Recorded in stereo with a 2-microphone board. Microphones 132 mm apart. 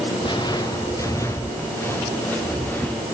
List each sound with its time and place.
0.2 s footsteps: 35° left (ahead or behind), 1.6 m; by 3.0 s 10° left (ahead or behind), 4 m